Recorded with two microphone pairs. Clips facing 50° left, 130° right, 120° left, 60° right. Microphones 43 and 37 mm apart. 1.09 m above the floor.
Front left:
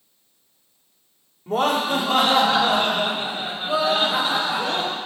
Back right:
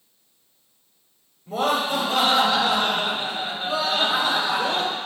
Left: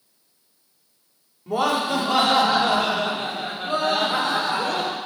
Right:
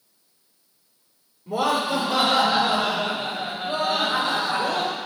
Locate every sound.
1.5 s laughter: 85° left, 2 m; by 5.0 s 145° left, 3 m